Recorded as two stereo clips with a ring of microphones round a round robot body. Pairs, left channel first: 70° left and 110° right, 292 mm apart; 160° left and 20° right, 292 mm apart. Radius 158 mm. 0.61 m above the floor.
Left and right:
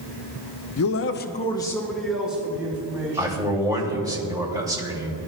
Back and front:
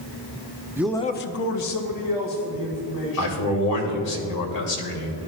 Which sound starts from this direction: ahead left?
A man speaking, at 0.8 s.